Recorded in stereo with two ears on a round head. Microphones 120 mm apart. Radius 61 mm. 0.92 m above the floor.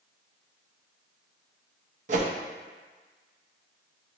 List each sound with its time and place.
2.1 s a whoosh: 60° right (ahead or behind), 0.5 m